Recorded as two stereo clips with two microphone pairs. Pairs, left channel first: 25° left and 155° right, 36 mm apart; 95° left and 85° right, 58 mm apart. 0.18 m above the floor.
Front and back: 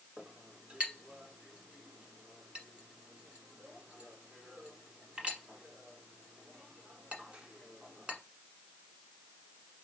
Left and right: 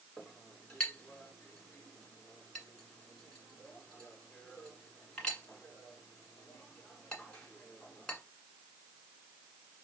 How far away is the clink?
About 1.4 m.